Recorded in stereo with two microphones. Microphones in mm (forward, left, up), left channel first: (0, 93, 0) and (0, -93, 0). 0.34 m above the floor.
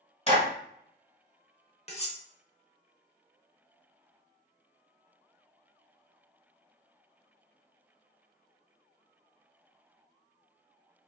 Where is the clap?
35° left (ahead or behind), 1.6 m.